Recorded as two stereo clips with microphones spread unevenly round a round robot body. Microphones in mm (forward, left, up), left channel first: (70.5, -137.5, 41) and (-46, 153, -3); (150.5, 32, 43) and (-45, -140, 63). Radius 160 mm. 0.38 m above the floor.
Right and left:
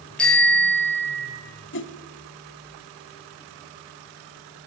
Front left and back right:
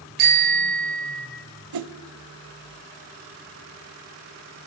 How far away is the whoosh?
About 1.0 m.